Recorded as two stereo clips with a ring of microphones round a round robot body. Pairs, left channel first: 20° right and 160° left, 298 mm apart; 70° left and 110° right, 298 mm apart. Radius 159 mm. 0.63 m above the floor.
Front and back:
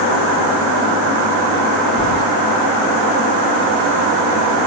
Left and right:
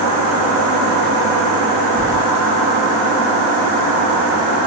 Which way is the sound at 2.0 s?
35° right.